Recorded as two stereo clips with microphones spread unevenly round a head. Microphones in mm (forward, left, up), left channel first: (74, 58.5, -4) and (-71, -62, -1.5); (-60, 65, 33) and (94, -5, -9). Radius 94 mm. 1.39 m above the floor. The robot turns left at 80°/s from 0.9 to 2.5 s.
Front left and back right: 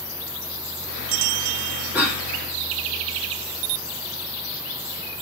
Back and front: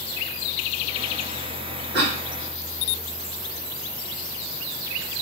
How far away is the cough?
About 3 m.